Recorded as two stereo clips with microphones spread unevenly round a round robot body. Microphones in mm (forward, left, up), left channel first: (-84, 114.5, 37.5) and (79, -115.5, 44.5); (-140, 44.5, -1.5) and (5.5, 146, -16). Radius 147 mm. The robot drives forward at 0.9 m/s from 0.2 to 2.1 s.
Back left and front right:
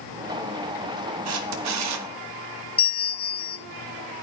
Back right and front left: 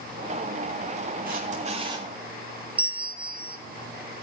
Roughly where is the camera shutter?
Ahead.